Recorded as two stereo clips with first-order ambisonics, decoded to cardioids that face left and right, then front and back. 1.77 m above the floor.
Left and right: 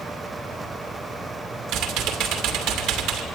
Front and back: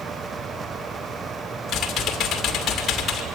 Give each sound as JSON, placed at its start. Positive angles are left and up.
{"t": 1.7, "sound": "typing on a keyboard", "azimuth_deg": -60, "distance_m": 2.5}